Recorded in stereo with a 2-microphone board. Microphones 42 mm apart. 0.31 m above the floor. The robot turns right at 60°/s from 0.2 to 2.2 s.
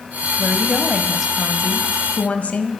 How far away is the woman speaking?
About 2 m.